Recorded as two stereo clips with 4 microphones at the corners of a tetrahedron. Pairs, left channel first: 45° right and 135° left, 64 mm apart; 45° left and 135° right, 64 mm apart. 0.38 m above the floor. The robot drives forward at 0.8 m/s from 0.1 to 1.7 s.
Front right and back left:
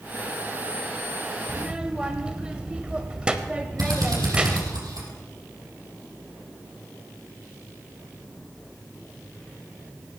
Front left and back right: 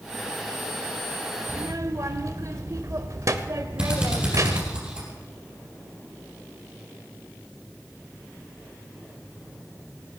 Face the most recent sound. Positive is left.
turn(degrees=150)